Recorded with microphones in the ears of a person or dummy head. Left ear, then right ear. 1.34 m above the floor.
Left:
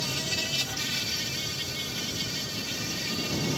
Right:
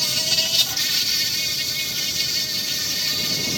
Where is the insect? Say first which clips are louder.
Right 9 dB; 50° right (ahead or behind).